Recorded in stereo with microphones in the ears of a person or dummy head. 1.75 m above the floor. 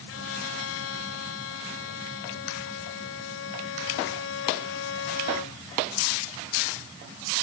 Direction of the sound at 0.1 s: 85° left.